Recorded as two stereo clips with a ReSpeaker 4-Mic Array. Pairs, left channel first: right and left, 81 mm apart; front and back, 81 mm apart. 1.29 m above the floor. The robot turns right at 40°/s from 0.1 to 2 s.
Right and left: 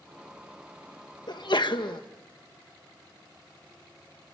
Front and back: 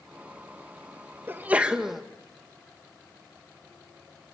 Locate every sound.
1.3 s a sneeze: 115° right, 1.9 m; by 2.0 s 90° right, 1.9 m